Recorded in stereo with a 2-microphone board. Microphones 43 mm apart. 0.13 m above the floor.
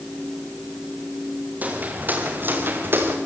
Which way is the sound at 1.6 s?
35° right (ahead or behind).